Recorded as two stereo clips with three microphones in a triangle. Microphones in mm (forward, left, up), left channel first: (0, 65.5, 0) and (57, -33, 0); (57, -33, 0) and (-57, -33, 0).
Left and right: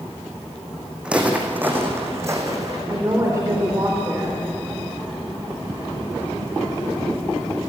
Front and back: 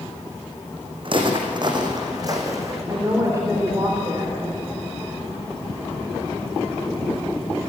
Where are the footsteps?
140° right, 3.5 m; by 2.8 s 120° right, 4 m.